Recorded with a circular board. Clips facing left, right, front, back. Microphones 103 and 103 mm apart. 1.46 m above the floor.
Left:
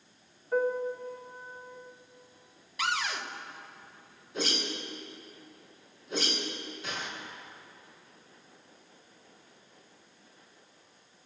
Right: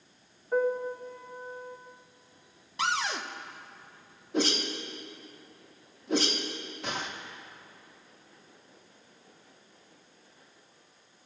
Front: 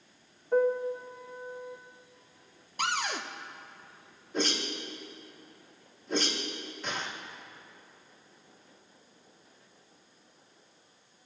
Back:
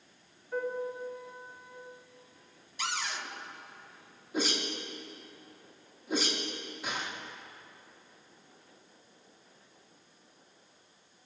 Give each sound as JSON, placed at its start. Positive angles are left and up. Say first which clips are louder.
{"t": 0.5, "sound": "a piano", "louder": "right 1 dB, front 8 dB", "azimuth_deg": -15, "distance_m": 1.4}
{"t": 2.8, "sound": "a cupboard door", "louder": "right 2 dB, front 5 dB", "azimuth_deg": -30, "distance_m": 0.9}
{"t": 4.3, "sound": "a whoosh", "louder": "right 5 dB, front 1 dB", "azimuth_deg": -100, "distance_m": 1.9}